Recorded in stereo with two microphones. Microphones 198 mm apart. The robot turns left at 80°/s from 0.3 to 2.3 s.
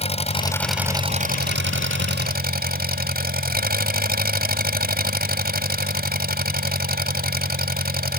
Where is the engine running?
35° left; by 8.2 s 125° right.